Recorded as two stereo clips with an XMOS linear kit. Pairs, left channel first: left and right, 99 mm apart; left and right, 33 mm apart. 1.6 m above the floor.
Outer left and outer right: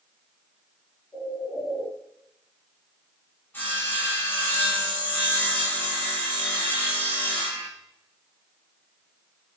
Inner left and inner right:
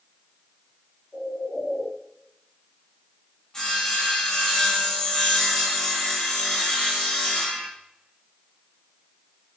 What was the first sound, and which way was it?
A bird, 35° left (ahead or behind).